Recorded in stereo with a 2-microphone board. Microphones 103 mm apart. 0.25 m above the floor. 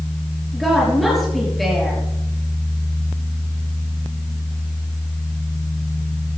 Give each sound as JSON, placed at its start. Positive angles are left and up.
{"t": 0.5, "sound": "a woman speaking", "side_deg": 0, "distance_m": 5.0}